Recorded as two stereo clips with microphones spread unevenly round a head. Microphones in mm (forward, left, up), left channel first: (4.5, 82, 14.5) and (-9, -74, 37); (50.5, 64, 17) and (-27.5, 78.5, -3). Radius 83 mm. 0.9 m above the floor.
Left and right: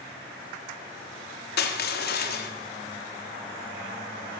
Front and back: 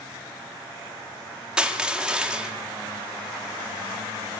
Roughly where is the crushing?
Left.